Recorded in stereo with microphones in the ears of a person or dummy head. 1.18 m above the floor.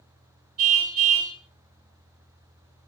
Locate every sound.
0.6 s a car horn: 45° right (ahead or behind), 3.5 m